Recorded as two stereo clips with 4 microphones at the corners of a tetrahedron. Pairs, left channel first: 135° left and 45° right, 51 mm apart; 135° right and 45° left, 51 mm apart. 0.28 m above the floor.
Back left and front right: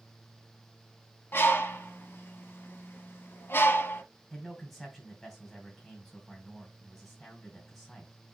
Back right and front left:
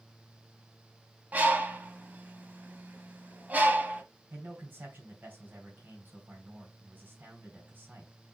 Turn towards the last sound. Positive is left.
turn(degrees=55)